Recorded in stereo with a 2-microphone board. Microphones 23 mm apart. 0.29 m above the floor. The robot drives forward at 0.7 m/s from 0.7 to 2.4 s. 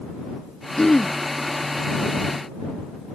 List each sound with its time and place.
0.8 s throat clearing: 30° left (ahead or behind); by 1.1 s 25° left (ahead or behind)